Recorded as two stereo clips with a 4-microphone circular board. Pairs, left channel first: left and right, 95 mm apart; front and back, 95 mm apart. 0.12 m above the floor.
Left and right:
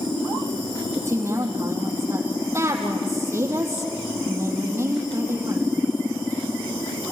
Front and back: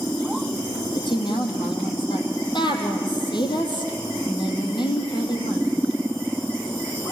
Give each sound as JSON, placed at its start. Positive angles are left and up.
{"t": 0.9, "sound": "a woman speaking", "azimuth_deg": -30, "distance_m": 4.0}